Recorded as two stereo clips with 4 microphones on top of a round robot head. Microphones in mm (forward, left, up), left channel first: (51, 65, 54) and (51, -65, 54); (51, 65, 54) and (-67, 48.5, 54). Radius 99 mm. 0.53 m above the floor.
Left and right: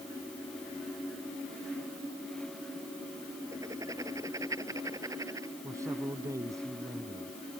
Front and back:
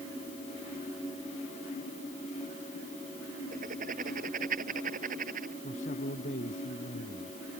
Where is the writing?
160° right.